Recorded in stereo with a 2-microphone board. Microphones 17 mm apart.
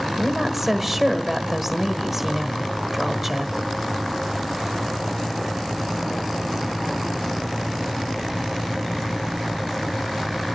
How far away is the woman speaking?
About 1.2 m.